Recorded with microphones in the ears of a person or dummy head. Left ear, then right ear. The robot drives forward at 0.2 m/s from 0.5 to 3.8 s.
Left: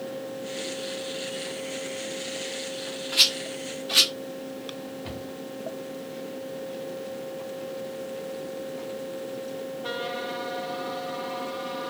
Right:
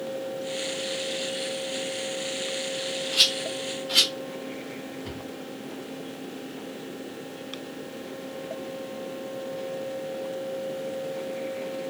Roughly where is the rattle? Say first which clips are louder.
Left 1 dB; centre.